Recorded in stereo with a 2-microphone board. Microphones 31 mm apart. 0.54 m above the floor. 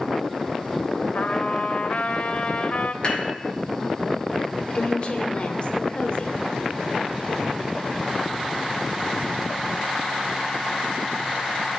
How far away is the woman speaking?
About 1.3 m.